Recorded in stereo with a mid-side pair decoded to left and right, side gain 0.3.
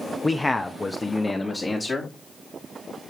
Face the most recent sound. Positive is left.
turn(degrees=35)